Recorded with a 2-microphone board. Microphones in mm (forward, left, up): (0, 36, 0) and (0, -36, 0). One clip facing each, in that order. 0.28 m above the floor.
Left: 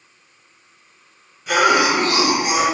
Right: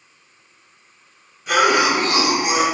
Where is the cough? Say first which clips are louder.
Left 1 dB; 5° right (ahead or behind), 1.4 m.